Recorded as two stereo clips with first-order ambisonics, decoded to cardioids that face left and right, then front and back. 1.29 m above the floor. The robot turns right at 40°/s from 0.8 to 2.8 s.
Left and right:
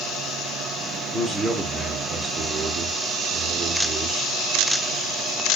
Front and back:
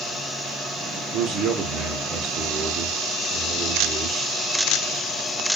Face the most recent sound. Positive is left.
turn(degrees=-120)